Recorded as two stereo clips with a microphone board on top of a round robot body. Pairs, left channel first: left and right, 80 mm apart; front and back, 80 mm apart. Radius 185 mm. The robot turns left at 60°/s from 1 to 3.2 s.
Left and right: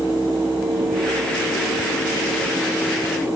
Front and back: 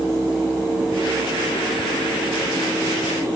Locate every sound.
Only background noise.